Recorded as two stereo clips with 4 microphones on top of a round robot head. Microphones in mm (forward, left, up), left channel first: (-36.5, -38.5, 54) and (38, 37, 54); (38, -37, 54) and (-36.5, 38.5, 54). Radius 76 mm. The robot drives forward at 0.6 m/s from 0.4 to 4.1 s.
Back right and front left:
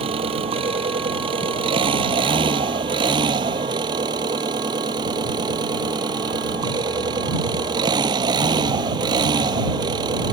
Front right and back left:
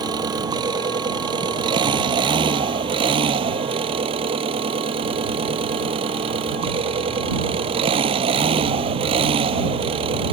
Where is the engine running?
85° left; by 10.3 s 95° left.